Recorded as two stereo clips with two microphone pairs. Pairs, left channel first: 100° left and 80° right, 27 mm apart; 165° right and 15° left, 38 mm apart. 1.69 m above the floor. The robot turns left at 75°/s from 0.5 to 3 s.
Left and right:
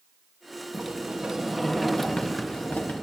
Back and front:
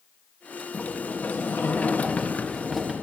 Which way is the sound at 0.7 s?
100° right.